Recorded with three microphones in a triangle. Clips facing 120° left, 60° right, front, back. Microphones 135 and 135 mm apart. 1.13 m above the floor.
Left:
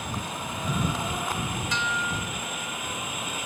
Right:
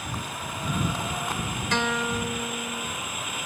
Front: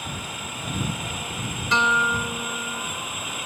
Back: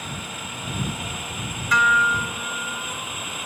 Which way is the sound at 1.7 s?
60° right.